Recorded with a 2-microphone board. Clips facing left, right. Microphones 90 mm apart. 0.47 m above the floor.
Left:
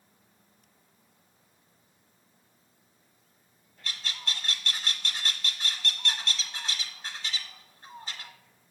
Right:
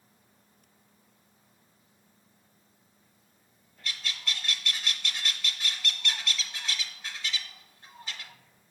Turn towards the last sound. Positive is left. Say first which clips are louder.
# even
turn(degrees=35)  # may be behind; listen again after turning